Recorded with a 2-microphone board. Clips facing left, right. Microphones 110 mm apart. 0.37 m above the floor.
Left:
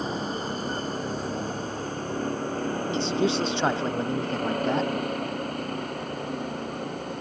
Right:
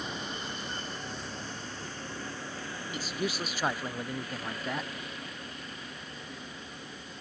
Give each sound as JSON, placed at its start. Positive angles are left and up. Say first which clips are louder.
{"t": 0.0, "sound": "a vehicle", "louder": "left 9 dB", "side_deg": 35}
{"t": 2.9, "sound": "a man speaking", "louder": "left 9 dB", "side_deg": 25}